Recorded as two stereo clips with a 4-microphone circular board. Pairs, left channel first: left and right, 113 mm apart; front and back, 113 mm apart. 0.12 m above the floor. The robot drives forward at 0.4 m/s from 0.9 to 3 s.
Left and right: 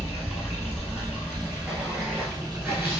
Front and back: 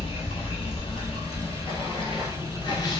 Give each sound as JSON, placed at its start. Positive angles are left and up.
{"t": 0.0, "sound": "running water", "azimuth_deg": -10, "distance_m": 1.7}